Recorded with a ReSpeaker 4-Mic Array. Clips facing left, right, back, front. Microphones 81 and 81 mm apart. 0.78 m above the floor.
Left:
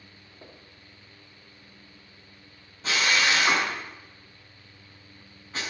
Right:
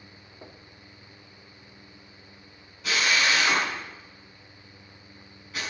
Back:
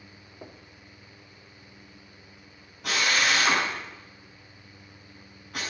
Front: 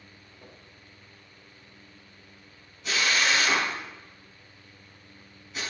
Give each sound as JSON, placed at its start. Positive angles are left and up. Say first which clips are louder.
{"t": 0.4, "sound": "knocking", "louder": "right 2 dB, back 6 dB", "azimuth_deg": -165, "distance_m": 1.4}
{"t": 2.8, "sound": "a drill", "louder": "even, back 1 dB", "azimuth_deg": 150, "distance_m": 5.5}